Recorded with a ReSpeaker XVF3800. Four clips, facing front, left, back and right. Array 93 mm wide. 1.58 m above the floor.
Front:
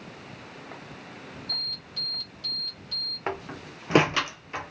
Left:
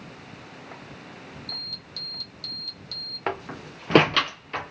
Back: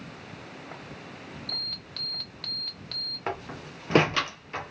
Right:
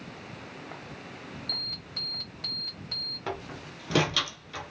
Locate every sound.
1.5 s an alarm: 150° right, 1.3 m
3.3 s a door slam: 80° left, 0.6 m